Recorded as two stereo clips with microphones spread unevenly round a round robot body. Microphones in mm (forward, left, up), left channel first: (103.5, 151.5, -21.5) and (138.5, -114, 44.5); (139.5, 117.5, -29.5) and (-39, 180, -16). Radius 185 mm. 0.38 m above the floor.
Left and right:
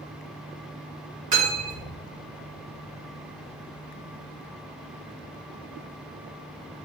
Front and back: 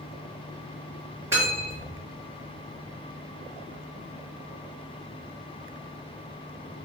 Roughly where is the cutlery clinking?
Behind right.